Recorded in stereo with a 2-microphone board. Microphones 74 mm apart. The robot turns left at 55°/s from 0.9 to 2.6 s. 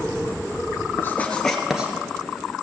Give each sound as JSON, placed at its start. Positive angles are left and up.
{"t": 1.0, "sound": "writing", "side_deg": 30, "distance_m": 1.5}